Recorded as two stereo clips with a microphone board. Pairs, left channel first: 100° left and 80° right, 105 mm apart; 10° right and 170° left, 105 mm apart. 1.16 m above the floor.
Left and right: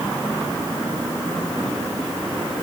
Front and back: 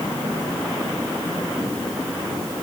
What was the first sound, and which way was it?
Only background noise.